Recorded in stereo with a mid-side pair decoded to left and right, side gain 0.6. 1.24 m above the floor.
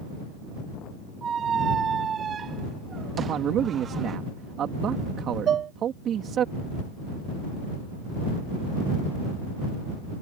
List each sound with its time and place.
1.2 s a squeak: 35° right
3.2 s a man speaking: 50° right
5.5 s dishes clattering: 45° right